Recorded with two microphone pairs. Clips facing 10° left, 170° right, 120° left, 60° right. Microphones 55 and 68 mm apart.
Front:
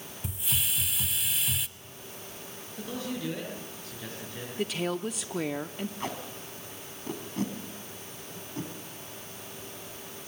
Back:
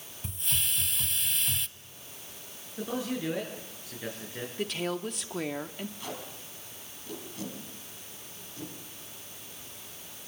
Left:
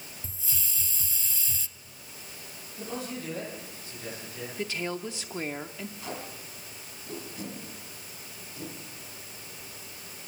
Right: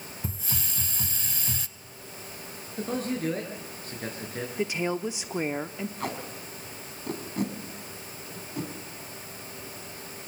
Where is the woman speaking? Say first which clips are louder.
Front 2 dB, right 5 dB; 80° right, 0.6 m.